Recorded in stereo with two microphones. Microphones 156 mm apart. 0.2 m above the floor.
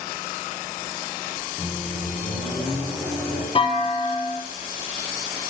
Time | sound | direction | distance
1.6 | a microwave | 20° left (ahead or behind) | 1.3 m
3.5 | a clunk | 40° left (ahead or behind) | 0.5 m